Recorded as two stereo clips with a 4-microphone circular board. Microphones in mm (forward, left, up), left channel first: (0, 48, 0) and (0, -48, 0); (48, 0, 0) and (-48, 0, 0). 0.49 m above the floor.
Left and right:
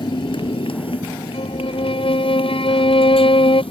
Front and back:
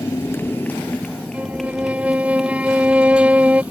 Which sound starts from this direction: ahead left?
A motorcycle, at 0.0 s.